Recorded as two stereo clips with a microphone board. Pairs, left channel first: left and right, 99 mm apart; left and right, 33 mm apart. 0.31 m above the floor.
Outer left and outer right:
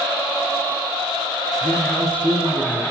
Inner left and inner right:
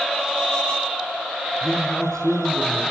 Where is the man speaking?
20° left (ahead or behind), 4 m.